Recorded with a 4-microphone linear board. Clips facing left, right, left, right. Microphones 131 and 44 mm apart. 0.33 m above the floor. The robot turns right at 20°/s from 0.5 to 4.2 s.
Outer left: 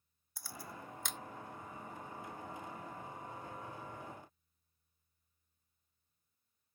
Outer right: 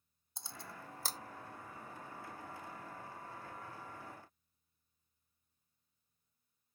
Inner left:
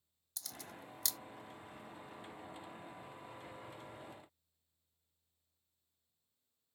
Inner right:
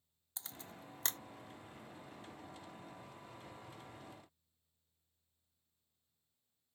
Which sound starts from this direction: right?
A camera shutter, at 0.4 s.